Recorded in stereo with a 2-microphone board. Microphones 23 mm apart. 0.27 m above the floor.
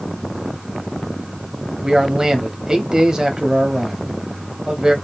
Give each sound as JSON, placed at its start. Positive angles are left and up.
{"t": 1.8, "sound": "a man speaking", "side_deg": -30, "distance_m": 1.0}